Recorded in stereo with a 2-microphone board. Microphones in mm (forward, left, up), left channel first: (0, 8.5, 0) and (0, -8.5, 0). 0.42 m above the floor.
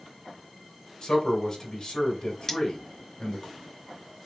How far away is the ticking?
No ticking in this recording.